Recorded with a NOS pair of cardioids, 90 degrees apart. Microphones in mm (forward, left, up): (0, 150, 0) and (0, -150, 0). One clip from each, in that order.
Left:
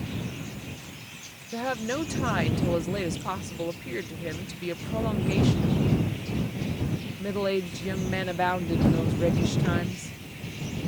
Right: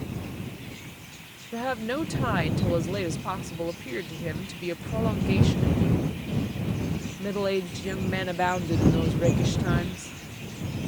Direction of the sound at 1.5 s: 5° right.